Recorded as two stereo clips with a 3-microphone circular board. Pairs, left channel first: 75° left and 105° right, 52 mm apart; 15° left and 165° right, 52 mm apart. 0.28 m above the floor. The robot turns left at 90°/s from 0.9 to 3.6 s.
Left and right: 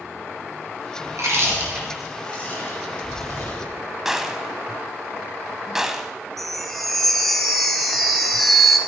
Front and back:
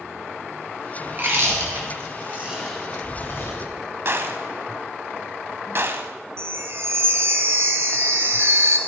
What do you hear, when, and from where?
1.1 s chewing: 105° right, 4.5 m; by 3.7 s 25° left, 4.5 m
4.0 s a gunshot: 175° left, 1.0 m
6.4 s a chime: 160° left, 1.8 m